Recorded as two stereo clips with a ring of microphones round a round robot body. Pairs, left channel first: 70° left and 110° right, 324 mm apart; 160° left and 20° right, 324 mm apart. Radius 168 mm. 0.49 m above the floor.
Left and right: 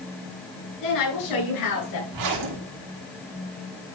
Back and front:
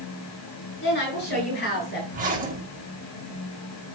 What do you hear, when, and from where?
0.8 s a woman speaking: 100° left, 7 m; by 2.0 s 95° left, 8 m
2.1 s a zipper: 85° right, 4 m